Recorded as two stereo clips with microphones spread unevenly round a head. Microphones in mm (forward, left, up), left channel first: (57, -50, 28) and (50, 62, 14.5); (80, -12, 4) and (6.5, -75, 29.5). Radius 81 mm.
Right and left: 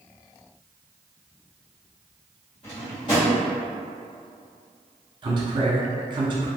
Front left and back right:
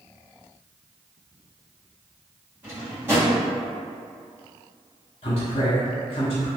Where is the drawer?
100° right, 1.5 m.